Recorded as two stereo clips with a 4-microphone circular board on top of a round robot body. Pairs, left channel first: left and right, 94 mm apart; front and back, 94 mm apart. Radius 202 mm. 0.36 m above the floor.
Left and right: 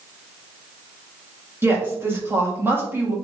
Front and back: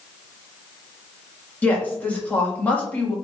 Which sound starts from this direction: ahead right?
A woman speaking, at 1.6 s.